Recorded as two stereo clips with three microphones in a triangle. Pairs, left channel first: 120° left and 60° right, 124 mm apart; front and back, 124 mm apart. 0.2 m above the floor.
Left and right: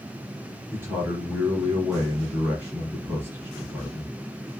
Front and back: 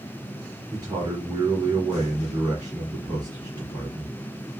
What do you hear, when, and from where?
0.7 s a man speaking: 130° right, 1.9 m